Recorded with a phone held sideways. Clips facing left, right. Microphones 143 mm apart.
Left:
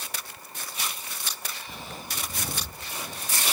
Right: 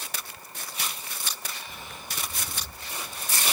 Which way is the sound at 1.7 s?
30° left (ahead or behind).